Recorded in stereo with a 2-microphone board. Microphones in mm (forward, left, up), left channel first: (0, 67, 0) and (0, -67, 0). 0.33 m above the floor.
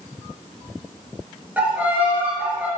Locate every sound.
1.6 s a violin: 10° right (ahead or behind), 6 m